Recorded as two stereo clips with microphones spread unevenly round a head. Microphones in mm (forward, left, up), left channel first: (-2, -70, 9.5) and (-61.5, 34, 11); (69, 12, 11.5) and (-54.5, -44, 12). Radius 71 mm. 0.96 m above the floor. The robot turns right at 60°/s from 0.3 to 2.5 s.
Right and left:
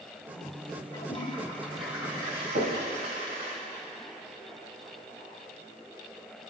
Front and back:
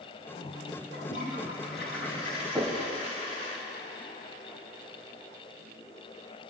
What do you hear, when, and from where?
0.9 s a toilet flushing: 20° right, 2.5 m; by 3.5 s 75° left, 2.5 m
2.5 s knocking: 120° left, 3.5 m